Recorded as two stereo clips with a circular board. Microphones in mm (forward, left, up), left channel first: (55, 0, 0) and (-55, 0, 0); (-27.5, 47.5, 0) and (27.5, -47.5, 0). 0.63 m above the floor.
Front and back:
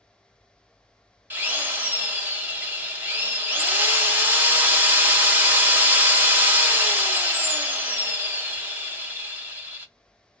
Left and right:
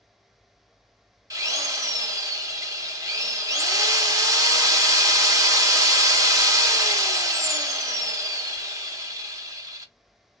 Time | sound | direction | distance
1.3 | a drill | 110° right | 0.8 m